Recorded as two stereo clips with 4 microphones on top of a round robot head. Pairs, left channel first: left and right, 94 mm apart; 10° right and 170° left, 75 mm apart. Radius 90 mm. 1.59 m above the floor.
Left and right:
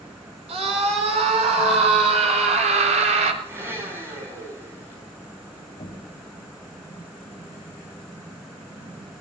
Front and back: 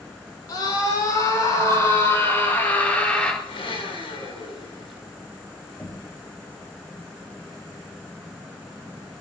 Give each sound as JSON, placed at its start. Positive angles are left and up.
{"t": 0.5, "sound": "a scream", "azimuth_deg": -60, "distance_m": 5.5}
{"t": 3.4, "sound": "a blender", "azimuth_deg": -20, "distance_m": 7.5}
{"t": 5.8, "sound": "knocking", "azimuth_deg": 65, "distance_m": 6.5}